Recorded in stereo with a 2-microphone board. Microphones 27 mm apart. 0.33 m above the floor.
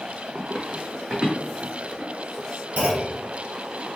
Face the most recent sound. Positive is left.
turn(degrees=-65)  # may be behind; listen again after turning